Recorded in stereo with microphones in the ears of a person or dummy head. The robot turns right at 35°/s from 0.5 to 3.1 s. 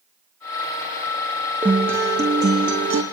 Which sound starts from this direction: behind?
A guitar, at 1.6 s.